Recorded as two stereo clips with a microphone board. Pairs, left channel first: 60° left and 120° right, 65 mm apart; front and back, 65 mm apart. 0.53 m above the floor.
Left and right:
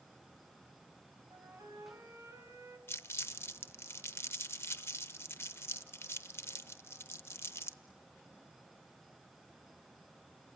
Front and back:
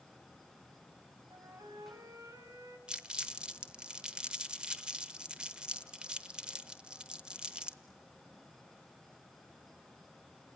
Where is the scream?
I don't hear a scream.